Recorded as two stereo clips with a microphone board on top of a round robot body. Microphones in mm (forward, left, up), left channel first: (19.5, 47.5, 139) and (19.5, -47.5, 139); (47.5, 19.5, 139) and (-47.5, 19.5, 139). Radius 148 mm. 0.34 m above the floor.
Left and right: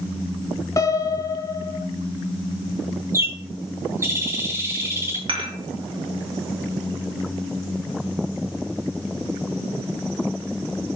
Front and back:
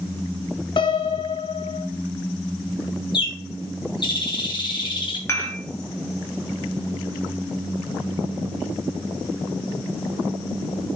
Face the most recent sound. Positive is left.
turn(degrees=-60)